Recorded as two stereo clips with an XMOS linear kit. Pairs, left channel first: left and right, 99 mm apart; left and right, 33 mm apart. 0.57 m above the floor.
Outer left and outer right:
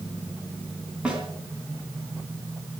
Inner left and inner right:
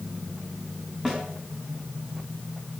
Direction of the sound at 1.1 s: 10° right (ahead or behind).